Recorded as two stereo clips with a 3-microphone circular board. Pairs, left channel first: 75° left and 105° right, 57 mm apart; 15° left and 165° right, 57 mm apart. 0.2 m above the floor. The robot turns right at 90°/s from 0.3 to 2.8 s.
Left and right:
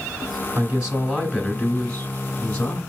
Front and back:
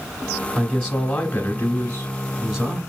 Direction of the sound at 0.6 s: 70° right.